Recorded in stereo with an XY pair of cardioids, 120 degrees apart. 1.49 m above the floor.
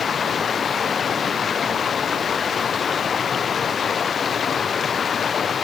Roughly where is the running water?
Ahead left.